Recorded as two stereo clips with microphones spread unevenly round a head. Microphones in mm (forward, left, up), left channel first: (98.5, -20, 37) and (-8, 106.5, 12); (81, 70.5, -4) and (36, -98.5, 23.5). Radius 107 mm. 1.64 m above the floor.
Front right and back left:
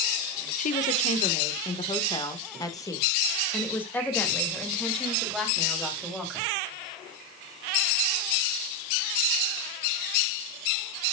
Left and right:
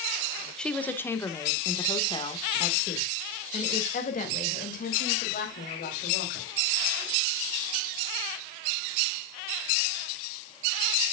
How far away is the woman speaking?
About 1.9 m.